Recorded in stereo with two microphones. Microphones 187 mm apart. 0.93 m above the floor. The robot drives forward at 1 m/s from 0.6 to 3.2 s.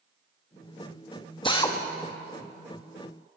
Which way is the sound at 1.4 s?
25° left (ahead or behind).